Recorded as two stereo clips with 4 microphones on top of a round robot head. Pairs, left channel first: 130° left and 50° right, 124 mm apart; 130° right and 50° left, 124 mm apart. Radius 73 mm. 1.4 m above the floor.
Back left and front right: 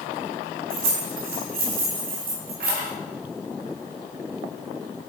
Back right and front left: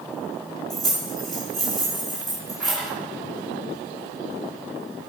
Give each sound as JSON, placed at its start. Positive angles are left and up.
{"t": 0.7, "sound": "keys jangling", "azimuth_deg": -40, "distance_m": 2.5}